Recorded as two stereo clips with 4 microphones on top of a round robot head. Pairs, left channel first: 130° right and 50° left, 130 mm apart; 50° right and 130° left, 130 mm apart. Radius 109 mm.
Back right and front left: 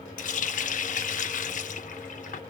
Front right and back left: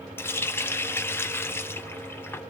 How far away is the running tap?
About 0.9 m.